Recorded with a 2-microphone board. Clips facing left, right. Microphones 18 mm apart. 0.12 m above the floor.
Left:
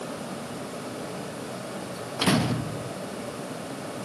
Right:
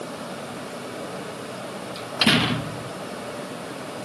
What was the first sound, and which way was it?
A door slam, 55° right (ahead or behind).